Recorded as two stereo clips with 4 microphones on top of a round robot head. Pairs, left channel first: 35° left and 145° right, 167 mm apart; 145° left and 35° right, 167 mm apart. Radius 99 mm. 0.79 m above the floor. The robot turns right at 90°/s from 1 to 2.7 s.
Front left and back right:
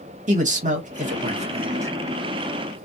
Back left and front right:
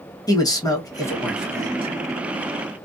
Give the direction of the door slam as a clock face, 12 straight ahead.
I don't hear a door slam.